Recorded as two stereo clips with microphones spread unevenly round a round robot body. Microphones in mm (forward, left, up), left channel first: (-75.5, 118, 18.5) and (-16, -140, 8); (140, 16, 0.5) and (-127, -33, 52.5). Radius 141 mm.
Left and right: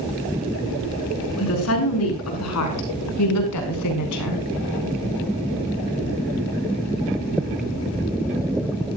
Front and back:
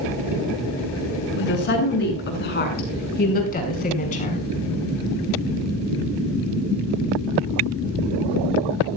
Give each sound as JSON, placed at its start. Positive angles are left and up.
{"t": 1.4, "sound": "a woman speaking", "azimuth_deg": 60, "distance_m": 5.5}